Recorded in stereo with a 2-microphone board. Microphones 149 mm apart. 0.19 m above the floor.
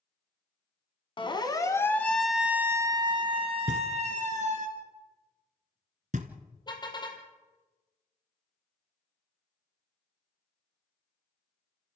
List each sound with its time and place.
1.2 s a siren: 35° left (ahead or behind), 2 m; by 4.7 s 55° right (ahead or behind), 3 m
3.7 s knocking: 60° right (ahead or behind), 1.7 m
6.7 s a car horn: 30° left (ahead or behind), 3 m